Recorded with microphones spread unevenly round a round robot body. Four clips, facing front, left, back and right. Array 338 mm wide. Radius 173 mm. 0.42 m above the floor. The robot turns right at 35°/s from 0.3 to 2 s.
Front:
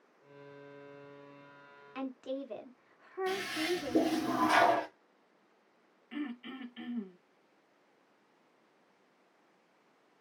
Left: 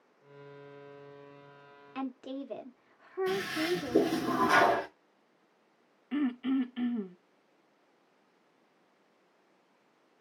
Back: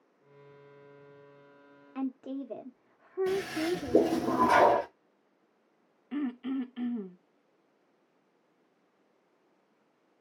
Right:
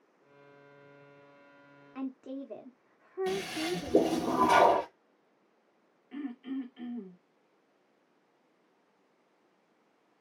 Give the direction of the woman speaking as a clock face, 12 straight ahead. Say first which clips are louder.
Left 1 dB, back 3 dB; 7 o'clock.